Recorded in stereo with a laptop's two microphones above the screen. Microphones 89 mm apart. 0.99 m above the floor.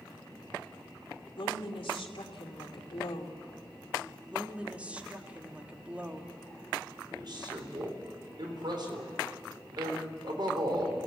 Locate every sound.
1.4 s a woman speaking: 80° left, 2.5 m
4.3 s a woman speaking: 15° right (ahead or behind), 2.5 m
7.1 s a man speaking: 55° right (ahead or behind), 4 m